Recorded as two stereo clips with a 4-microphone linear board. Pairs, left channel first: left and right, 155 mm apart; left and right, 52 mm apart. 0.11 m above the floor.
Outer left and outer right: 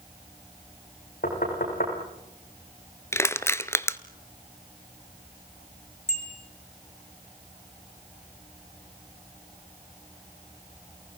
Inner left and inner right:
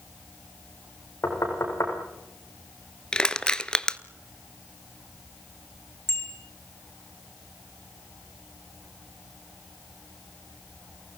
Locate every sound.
1.2 s knocking: 65° left (ahead or behind), 8.5 m
3.1 s crushing: 15° left (ahead or behind), 0.9 m
6.1 s a bicycle bell: 50° left (ahead or behind), 6 m